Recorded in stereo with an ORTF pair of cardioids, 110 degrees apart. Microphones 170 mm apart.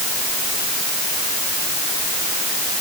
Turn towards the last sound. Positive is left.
No sound to turn to.